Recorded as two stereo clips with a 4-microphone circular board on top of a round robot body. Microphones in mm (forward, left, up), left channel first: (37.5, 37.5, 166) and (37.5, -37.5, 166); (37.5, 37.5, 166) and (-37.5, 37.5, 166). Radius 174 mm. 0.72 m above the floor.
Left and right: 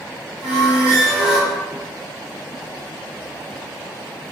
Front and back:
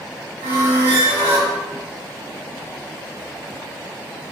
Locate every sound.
0.4 s a squeak: 175° right, 1.4 m